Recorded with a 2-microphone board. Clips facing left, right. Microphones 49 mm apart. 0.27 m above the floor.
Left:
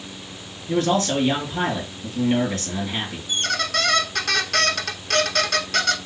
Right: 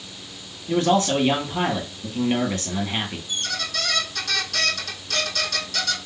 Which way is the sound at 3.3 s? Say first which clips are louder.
Left 5 dB; 60° left (ahead or behind).